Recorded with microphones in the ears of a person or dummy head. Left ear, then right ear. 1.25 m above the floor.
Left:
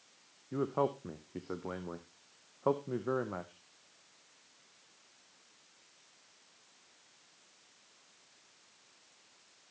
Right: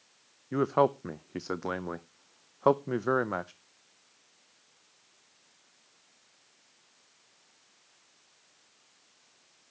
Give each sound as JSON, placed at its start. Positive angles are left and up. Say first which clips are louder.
{"t": 0.5, "sound": "a man speaking", "louder": "right 8 dB", "side_deg": -75, "distance_m": 0.6}